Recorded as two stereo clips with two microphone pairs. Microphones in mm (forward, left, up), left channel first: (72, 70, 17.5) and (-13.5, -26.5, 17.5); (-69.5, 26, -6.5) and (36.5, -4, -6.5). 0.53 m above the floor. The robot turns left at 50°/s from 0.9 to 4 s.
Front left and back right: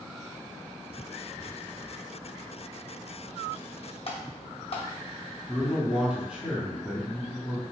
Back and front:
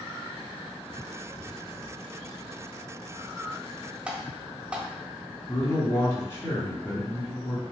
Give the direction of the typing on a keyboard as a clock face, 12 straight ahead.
10 o'clock.